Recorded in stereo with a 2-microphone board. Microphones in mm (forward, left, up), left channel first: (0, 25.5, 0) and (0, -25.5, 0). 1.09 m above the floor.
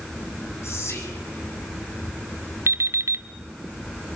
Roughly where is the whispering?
Left.